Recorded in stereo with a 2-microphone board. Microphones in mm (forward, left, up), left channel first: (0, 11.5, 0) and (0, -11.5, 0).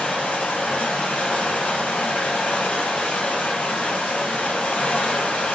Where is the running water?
80° left, 1.0 m.